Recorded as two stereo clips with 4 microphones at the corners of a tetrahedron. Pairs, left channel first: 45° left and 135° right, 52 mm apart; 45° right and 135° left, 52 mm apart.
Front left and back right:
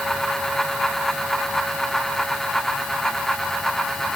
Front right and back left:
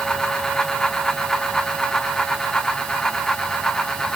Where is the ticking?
I don't hear ticking.